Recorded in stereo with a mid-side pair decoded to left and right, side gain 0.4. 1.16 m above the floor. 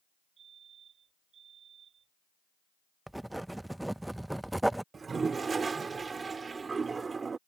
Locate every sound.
0.4 s a fire alarm: 65° right
3.1 s writing: 10° right
4.9 s a toilet flushing: 40° right